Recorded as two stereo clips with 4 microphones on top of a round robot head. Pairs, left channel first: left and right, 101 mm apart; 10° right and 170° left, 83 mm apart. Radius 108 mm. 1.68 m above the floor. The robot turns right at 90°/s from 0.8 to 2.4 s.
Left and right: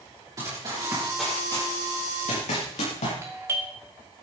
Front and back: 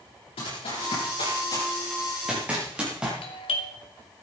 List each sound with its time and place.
0.4 s running footsteps: 30° right, 8.5 m; by 3.1 s 90° left, 8 m
3.2 s a doorbell: 25° right, 1.9 m